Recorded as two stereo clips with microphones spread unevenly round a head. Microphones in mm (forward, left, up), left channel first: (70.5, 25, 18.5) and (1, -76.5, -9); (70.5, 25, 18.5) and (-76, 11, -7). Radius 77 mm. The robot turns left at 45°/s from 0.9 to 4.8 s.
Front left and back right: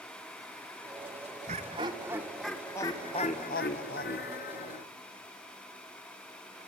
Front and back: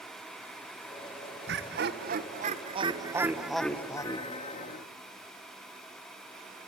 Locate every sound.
1.5 s laughter: 170° right, 1.6 m; by 4.8 s 40° left, 1.6 m